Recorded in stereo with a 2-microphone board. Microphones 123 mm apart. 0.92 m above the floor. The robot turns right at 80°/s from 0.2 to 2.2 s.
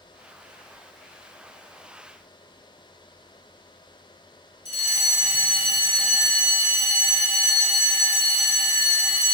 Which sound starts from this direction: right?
A fire alarm, at 4.7 s.